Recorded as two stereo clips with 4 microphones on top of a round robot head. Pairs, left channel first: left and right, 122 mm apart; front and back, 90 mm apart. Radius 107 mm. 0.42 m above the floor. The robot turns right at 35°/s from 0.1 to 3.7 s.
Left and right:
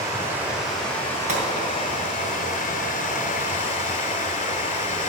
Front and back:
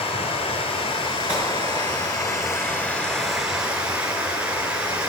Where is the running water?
25° right, 1.7 m; by 5.1 s 105° left, 1.7 m.